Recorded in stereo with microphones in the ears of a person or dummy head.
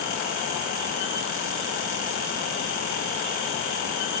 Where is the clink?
No clink in this recording.